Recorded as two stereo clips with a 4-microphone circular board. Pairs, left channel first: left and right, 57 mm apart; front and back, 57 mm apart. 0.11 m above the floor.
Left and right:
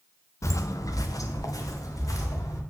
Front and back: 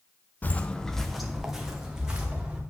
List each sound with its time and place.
0.4 s footsteps: 55° left, 0.7 m; by 2.6 s 105° left, 2.5 m